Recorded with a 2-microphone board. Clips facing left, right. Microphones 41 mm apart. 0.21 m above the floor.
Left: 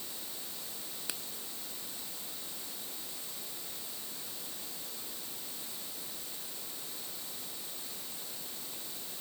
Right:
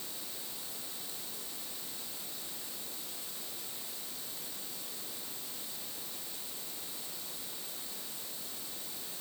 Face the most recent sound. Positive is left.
turn(degrees=80)